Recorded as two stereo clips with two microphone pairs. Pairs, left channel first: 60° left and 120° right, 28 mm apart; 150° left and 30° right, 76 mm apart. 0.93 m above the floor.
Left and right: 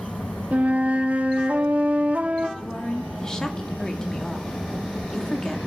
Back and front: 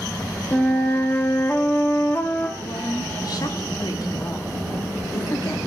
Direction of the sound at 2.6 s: 125° left.